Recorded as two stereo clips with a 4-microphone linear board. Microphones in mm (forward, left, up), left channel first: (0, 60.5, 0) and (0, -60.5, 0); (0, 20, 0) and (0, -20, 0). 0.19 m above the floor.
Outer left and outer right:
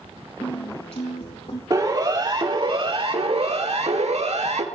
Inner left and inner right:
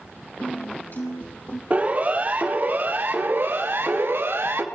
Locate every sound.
0.4 s a piano: 55° left (ahead or behind), 4 m
1.7 s a siren: 30° right (ahead or behind), 4.5 m; by 4.7 s 70° right (ahead or behind), 3 m